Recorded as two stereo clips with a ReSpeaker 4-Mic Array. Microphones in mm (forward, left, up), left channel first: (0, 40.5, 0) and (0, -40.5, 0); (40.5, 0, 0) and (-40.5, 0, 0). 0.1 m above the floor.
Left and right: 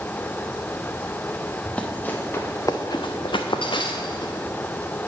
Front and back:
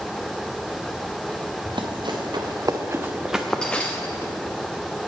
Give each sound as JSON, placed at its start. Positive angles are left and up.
{"t": 1.6, "sound": "running footsteps", "azimuth_deg": 170, "distance_m": 1.2}